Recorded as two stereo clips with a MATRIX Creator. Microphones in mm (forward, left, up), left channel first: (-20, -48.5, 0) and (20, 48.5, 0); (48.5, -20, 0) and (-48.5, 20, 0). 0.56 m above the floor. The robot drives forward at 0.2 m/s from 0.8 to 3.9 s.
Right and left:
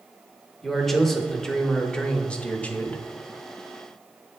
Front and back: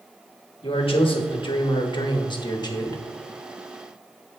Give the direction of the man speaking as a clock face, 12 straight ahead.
1 o'clock.